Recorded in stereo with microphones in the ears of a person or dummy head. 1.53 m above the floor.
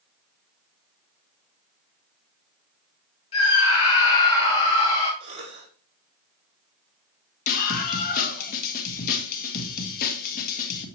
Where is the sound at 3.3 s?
30° left (ahead or behind), 2.5 m.